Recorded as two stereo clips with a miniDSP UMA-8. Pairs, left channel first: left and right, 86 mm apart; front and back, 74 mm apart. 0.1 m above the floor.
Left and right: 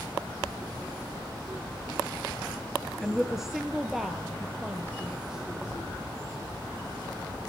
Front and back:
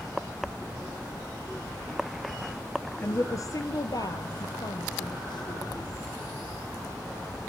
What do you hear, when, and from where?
3.0 s a woman speaking: 5° right, 1.5 m; by 5.7 s 10° right, 4 m